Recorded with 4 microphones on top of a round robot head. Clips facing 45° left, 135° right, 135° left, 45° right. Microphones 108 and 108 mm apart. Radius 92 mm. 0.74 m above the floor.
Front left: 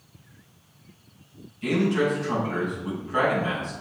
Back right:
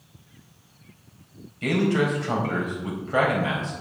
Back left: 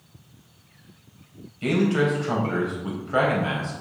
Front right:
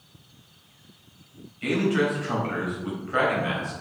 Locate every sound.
1.6 s a man speaking: 160° right, 4 m